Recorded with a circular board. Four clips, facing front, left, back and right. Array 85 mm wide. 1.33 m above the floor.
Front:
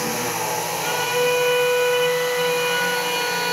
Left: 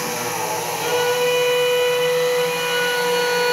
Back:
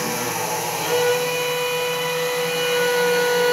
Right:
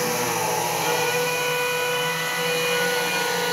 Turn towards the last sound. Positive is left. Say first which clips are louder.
# left 4 dB, back 3 dB
turn(degrees=100)